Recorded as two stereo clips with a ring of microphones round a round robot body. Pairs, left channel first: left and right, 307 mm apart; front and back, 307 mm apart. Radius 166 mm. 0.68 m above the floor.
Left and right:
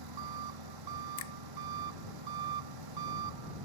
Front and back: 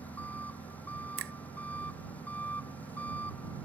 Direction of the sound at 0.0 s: 85° right.